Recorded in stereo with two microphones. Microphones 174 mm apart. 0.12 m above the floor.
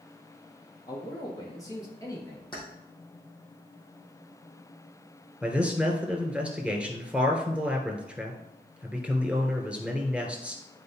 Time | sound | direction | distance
0.9 | a man speaking | 20° left (ahead or behind) | 3.5 m
2.5 | keys jangling | 25° left (ahead or behind) | 3.5 m
5.4 | a man speaking | 5° right (ahead or behind) | 1.6 m